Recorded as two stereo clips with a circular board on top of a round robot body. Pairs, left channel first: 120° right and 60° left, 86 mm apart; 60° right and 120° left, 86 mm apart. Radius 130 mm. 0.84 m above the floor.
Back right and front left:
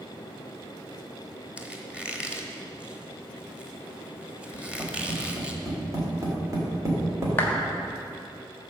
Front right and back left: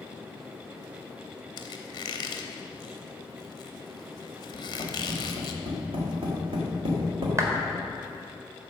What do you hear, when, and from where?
1.6 s a squeak: 20° right, 0.9 m
4.5 s tapping: 115° left, 2.5 m
7.4 s a clap: 175° left, 1.6 m